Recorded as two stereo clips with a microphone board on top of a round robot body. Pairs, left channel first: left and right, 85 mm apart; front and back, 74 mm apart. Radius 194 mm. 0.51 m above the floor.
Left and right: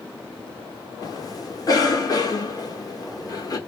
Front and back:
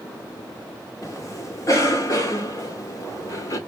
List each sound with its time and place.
1.0 s a cough: 45° left, 1.6 m